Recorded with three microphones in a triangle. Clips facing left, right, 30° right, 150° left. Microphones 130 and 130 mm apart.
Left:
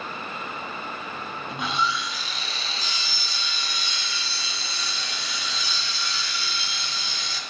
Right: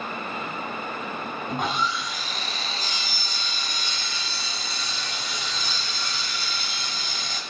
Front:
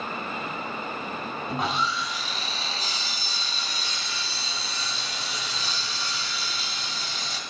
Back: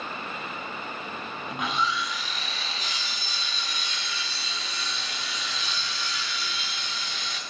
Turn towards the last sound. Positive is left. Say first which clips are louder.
# even, front 1 dB
turn(degrees=-75)